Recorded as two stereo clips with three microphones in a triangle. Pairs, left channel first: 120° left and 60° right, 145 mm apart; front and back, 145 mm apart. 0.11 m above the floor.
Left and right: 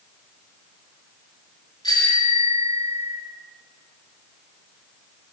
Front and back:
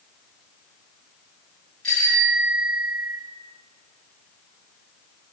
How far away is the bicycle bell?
About 7 m.